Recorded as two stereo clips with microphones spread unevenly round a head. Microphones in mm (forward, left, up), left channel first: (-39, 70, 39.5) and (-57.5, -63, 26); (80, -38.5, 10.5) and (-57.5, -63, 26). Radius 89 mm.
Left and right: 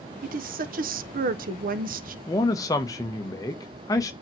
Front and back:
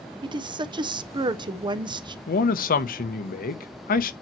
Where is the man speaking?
10° left, 0.7 m.